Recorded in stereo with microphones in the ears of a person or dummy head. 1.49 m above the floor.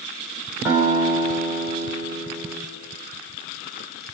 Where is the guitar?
15° right (ahead or behind), 4.5 m.